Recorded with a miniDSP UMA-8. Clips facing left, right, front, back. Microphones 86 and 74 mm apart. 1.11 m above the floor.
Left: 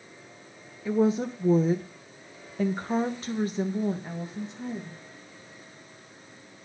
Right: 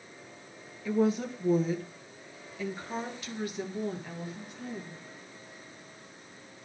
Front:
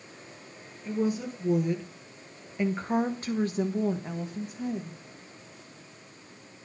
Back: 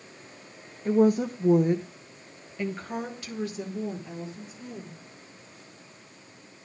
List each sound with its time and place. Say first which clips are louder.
0.8 s a woman speaking: left 3 dB, back 8 dB; 160° left, 1.2 m; by 5.0 s 20° left, 2 m